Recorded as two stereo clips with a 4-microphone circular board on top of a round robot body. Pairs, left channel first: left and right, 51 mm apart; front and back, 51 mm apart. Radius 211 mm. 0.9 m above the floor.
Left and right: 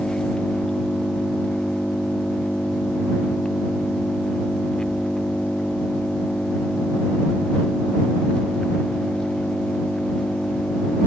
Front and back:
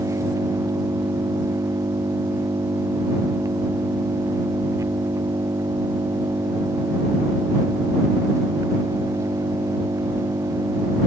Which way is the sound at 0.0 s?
165° left.